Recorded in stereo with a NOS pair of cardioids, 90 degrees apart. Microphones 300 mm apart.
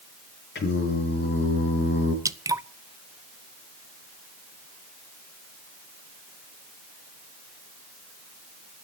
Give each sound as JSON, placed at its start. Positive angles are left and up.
{"t": 0.6, "sound": "singing", "azimuth_deg": 40, "distance_m": 5.5}
{"t": 2.2, "sound": "dripping", "azimuth_deg": -10, "distance_m": 0.8}